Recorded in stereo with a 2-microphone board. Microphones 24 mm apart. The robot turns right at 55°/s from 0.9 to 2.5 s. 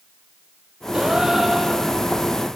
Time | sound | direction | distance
0.9 | a gasp | 35° right | 5 m